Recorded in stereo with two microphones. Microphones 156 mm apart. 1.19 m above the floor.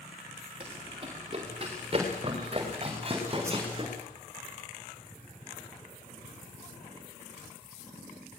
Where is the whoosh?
15° right (ahead or behind), 5 m.